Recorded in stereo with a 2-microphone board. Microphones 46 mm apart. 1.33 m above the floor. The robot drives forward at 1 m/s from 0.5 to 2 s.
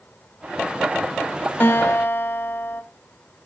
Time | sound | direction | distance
1.6 | a guitar | 55° left (ahead or behind) | 1.4 m